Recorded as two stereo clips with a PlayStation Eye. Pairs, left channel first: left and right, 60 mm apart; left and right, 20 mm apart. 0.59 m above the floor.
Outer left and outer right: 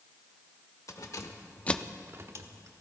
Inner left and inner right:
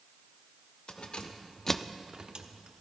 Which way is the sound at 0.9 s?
65° left (ahead or behind).